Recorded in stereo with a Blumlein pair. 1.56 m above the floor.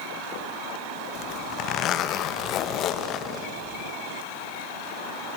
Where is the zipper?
35° left, 1.5 m.